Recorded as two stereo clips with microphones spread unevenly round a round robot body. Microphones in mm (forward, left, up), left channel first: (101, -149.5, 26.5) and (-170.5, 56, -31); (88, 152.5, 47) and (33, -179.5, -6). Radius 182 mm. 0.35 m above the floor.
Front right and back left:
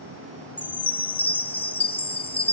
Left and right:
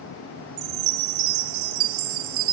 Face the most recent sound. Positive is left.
turn(degrees=-120)